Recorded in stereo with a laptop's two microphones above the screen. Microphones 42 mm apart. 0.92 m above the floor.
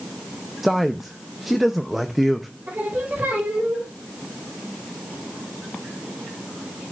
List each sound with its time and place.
0.6 s a man speaking: 5° right (ahead or behind), 0.5 m
2.7 s singing: 45° right (ahead or behind), 4 m